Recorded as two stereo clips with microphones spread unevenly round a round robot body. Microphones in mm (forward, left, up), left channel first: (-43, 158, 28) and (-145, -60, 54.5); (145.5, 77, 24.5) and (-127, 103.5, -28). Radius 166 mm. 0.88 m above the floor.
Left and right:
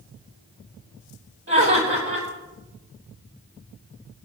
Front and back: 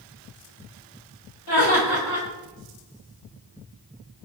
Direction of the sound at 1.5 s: 55° right.